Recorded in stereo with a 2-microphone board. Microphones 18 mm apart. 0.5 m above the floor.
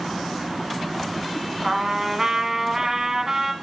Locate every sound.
1.6 s a trumpet: 25° right (ahead or behind), 1.3 m